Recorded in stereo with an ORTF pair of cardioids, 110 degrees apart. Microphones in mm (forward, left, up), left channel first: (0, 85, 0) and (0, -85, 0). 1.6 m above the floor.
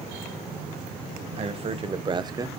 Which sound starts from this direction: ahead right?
A man speaking, at 1.4 s.